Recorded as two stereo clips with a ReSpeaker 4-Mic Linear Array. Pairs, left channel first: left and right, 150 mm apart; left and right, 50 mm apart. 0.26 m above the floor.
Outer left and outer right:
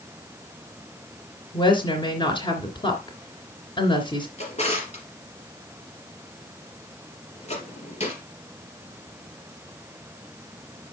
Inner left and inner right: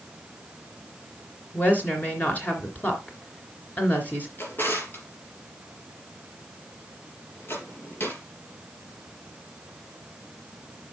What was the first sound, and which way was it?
A woman speaking, 30° left (ahead or behind).